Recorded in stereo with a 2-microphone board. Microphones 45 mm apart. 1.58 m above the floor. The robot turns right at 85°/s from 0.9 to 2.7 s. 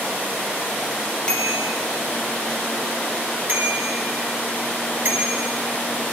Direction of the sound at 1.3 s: 160° left.